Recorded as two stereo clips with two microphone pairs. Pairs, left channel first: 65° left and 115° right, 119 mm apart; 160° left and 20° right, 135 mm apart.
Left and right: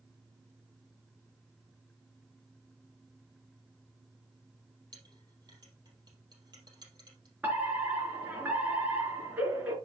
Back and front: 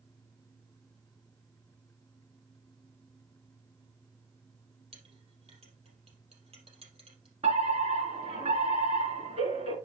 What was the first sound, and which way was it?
A clink, 60° right.